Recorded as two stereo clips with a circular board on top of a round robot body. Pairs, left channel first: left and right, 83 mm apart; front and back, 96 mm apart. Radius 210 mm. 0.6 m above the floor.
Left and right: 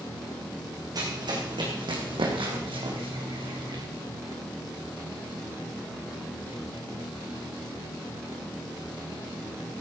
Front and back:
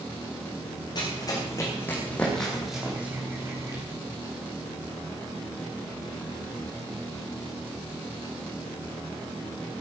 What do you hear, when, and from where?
0.9 s running footsteps: 50° right, 3.5 m; by 3.8 s 120° right, 3.5 m